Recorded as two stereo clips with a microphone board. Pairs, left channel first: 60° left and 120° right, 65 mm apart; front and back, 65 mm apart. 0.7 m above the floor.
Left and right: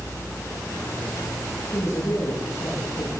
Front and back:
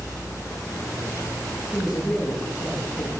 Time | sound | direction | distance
1.7 | a man speaking | 95° left | 9.5 m